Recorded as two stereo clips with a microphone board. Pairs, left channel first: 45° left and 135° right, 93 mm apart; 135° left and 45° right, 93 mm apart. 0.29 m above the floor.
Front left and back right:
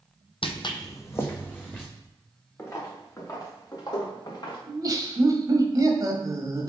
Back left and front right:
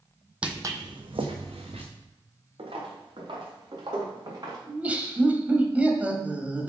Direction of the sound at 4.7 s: 115° right.